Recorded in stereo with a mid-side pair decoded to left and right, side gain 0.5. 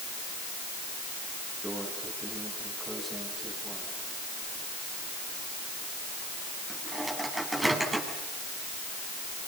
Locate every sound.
1.6 s a microwave: 15° right, 9.5 m